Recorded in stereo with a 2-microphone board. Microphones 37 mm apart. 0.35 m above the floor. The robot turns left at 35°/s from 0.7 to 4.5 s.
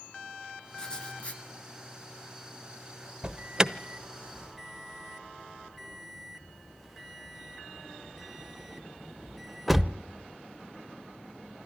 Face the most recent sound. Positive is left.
turn(degrees=-5)  # may be behind; listen again after turning